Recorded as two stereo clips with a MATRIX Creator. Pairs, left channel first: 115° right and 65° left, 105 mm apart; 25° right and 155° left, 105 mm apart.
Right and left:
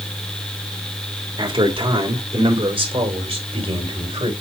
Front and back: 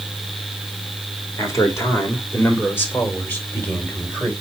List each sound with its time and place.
1.4 s a man speaking: 35° left, 2.5 m; by 4.3 s 55° left, 3.5 m